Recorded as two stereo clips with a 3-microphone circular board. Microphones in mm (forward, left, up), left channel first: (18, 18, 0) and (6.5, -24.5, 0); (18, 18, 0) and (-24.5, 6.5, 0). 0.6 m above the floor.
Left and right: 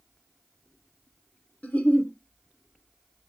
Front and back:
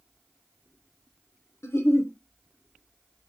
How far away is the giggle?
About 0.5 m.